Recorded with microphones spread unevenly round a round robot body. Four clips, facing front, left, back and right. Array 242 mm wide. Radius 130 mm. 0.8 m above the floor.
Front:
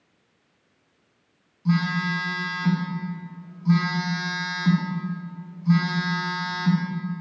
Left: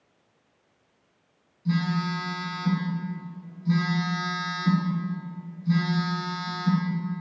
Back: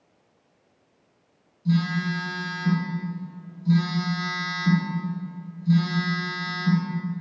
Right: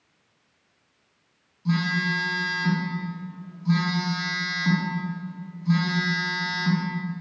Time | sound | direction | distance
1.6 | a phone buzzing | 20° right | 6.5 m